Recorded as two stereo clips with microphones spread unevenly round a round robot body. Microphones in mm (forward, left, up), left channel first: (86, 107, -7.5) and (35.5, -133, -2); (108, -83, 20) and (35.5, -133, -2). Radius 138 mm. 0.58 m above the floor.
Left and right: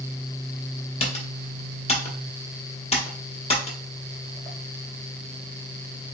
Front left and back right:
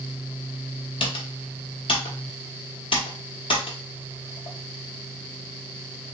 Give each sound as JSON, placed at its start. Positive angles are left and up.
{"t": 1.0, "sound": "typing on a keyboard", "azimuth_deg": 20, "distance_m": 1.1}